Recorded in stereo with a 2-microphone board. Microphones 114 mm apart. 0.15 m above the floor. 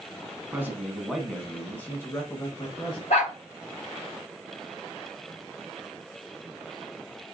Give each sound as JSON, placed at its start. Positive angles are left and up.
{"t": 0.5, "sound": "a man speaking", "side_deg": -20, "distance_m": 1.1}
{"t": 3.1, "sound": "a dog barking", "side_deg": 75, "distance_m": 3.0}